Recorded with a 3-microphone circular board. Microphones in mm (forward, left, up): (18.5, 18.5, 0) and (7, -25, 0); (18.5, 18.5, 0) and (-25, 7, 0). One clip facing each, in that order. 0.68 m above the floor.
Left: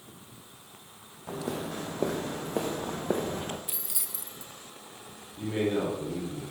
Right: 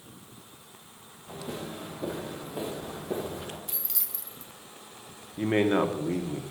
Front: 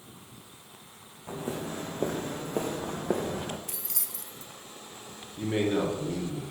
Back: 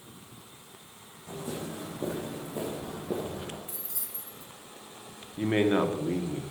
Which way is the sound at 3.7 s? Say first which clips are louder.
Left 1 dB, front 2 dB; 10° right.